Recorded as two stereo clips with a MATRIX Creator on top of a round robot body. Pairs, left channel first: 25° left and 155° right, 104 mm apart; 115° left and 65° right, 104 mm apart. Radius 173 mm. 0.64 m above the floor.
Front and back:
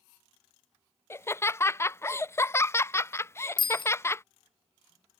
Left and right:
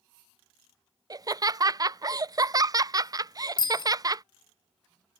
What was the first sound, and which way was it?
Laughter, 35° right.